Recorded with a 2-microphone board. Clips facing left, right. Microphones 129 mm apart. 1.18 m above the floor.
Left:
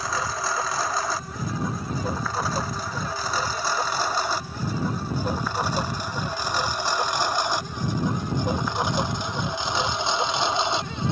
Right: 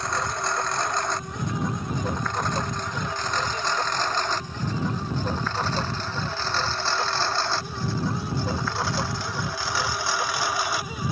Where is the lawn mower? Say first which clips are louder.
Even; centre (ahead or behind); by 11.1 s 25° left (ahead or behind).